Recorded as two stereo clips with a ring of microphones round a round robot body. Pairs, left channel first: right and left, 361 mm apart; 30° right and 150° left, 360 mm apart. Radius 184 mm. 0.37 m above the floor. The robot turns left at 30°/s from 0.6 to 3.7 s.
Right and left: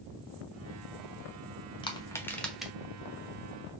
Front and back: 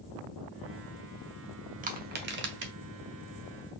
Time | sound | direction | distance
1.8 | crushing | 160° right | 1.1 m